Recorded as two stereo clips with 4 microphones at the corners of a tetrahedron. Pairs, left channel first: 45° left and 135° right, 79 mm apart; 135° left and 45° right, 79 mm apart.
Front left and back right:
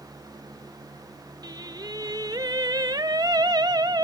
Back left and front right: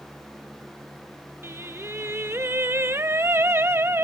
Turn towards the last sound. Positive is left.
turn(degrees=-105)